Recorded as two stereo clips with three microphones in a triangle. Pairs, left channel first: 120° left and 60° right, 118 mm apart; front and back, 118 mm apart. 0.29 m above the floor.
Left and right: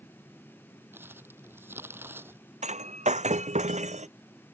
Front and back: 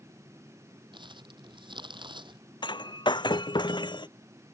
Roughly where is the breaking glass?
Ahead right.